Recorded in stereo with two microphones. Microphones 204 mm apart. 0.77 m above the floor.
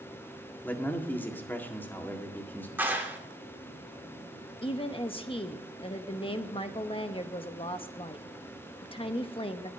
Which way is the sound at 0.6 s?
10° left (ahead or behind).